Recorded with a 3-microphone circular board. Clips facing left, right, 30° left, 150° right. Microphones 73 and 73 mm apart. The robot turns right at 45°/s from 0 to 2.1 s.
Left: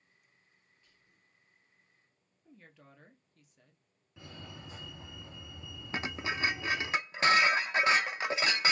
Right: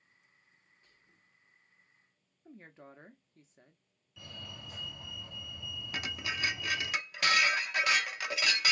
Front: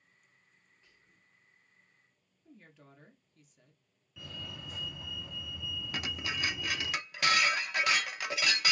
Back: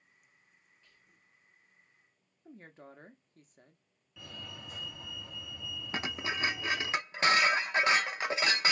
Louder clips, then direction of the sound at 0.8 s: Right 2 dB, even; 45° right.